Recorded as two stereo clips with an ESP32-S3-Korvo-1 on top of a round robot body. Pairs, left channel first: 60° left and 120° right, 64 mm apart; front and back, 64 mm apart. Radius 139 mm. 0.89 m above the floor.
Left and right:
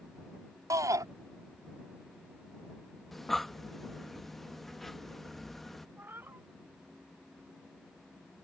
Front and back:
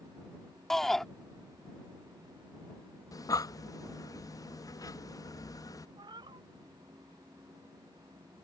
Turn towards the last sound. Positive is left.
turn(degrees=180)